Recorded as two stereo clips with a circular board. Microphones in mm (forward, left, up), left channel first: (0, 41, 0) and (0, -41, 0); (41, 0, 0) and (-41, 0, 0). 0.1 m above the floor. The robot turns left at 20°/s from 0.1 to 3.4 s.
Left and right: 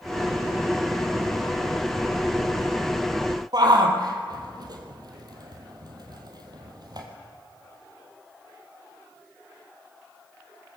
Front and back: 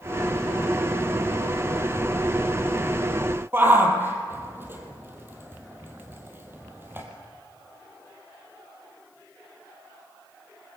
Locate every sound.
3.5 s a shout: 120° right, 3.5 m